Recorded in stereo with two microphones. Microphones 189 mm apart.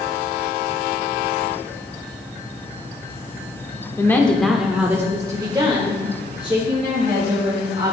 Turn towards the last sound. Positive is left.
turn(degrees=-35)  # may be behind; listen again after turning